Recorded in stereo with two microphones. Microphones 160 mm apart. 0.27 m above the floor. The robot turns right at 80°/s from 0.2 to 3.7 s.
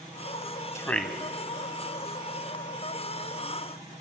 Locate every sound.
0.8 s a man speaking: 20° left (ahead or behind), 1.4 m; by 1.1 s 5° right (ahead or behind), 1.4 m